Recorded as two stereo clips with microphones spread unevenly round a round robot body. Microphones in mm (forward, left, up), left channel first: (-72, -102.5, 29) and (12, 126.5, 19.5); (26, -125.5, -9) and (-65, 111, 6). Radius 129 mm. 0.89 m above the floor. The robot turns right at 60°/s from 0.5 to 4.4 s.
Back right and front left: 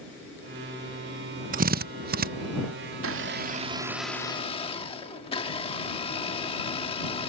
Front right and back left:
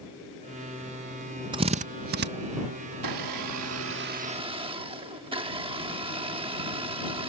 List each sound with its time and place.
1.5 s a drill: 45° left; by 2.3 s 90° left
2.9 s a blender: 95° left; by 7.3 s straight behind